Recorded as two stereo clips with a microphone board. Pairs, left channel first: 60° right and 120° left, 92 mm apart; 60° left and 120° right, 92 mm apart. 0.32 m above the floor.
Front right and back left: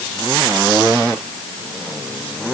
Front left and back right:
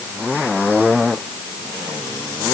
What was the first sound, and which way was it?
Only background noise.